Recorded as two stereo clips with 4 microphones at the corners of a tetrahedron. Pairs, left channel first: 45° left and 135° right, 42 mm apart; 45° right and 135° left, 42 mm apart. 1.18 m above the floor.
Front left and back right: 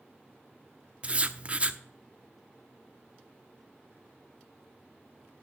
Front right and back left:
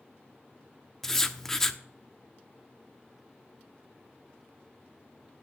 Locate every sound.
1.0 s writing: 115° right, 0.7 m